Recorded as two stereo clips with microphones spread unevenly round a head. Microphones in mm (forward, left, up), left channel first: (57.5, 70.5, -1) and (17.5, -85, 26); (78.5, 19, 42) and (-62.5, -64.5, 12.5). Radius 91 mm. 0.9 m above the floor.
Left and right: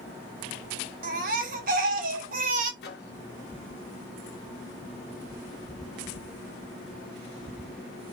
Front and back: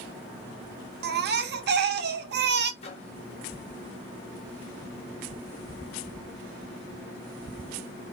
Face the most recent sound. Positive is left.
turn(degrees=90)